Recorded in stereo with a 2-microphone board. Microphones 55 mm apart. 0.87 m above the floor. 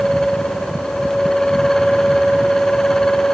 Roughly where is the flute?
I don't hear a flute.